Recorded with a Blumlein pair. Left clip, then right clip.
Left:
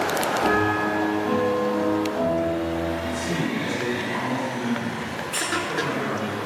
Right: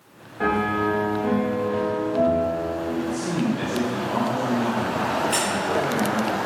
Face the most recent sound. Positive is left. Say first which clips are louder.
# right 4 dB
turn(degrees=-45)